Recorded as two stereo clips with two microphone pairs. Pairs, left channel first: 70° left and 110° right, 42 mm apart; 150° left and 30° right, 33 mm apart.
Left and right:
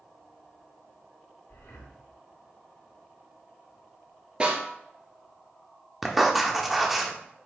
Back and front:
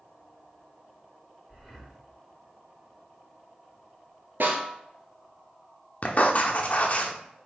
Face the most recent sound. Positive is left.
turn(degrees=160)